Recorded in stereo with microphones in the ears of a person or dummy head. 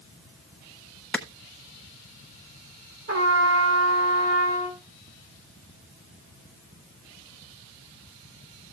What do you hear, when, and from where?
1.1 s a clap: 10° left (ahead or behind), 0.7 m
3.1 s a trumpet: 85° right, 3 m